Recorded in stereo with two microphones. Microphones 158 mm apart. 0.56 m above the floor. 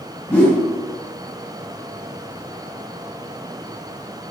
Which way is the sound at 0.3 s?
10° left (ahead or behind).